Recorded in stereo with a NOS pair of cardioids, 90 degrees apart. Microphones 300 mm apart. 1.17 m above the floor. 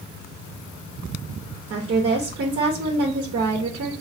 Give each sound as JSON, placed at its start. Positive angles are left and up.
{"t": 1.7, "sound": "a woman speaking", "azimuth_deg": -50, "distance_m": 1.1}